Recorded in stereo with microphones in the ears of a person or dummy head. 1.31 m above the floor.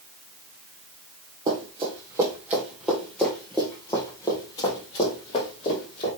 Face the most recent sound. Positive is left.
turn(degrees=35)  # may be behind; listen again after turning